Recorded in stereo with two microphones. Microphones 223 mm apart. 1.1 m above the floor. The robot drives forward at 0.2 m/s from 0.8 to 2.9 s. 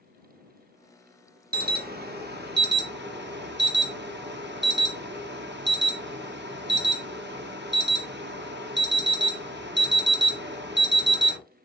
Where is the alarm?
45° right (ahead or behind), 0.9 m; by 11.4 s 55° right (ahead or behind), 0.7 m.